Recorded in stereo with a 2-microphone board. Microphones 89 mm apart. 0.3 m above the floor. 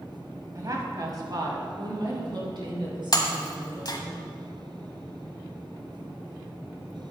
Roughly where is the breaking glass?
Left.